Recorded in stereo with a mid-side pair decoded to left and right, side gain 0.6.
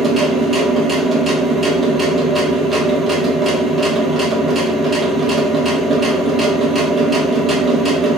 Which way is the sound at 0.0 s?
25° right.